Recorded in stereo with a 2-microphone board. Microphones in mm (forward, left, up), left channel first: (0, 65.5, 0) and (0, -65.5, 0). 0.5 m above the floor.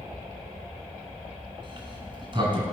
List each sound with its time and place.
1.6 s a sliding door: 40° right (ahead or behind), 1.9 m